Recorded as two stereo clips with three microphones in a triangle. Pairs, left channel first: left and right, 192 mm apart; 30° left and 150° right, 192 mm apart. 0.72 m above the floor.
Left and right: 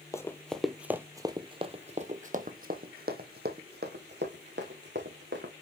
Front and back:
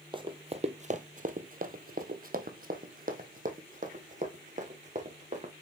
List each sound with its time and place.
0.1 s running footsteps: 160° left, 1.0 m; by 5.5 s 100° right, 2.5 m